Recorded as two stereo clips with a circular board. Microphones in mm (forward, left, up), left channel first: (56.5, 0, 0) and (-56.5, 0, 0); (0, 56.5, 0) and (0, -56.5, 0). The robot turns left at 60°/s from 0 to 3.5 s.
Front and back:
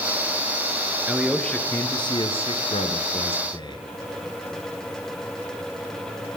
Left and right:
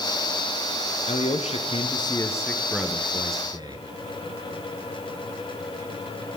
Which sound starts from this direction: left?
A man speaking, at 1.1 s.